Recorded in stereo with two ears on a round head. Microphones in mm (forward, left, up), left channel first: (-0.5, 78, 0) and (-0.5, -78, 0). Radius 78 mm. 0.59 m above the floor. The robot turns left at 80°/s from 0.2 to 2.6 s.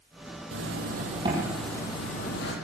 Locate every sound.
0.5 s a zipper: 95° right, 7.5 m; by 2.5 s 105° left, 7.5 m